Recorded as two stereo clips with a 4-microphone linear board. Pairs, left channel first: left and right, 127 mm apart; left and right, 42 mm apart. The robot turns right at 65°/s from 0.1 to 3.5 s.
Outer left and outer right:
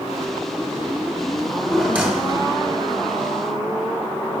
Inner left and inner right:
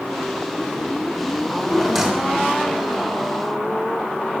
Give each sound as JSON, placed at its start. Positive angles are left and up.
{"t": 1.4, "sound": "a drawer", "azimuth_deg": 155, "distance_m": 1.2}